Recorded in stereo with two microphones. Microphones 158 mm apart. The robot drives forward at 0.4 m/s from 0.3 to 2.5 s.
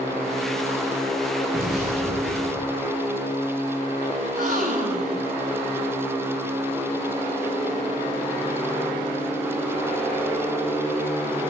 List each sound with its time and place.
1.5 s an explosion: 50° right (ahead or behind), 8.5 m; by 2.7 s 45° right (ahead or behind), 8.5 m
4.2 s a gasp: 60° right (ahead or behind), 2 m